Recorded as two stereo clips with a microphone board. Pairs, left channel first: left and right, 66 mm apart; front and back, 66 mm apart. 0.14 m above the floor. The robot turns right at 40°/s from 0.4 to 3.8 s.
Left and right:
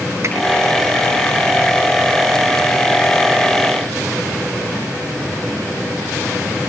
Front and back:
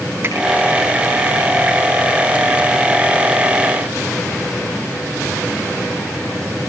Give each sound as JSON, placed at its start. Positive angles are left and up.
{"t": 0.2, "sound": "a finger snap", "azimuth_deg": -135, "distance_m": 6.5}